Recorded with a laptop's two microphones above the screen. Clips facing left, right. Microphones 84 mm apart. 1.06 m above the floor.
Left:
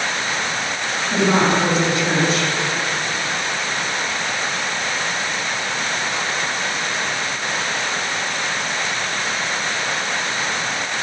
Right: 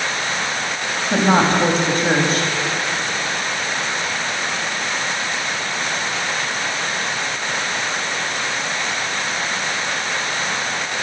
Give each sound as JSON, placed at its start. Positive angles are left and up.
{"t": 1.1, "sound": "a woman speaking", "side_deg": -40, "distance_m": 1.6}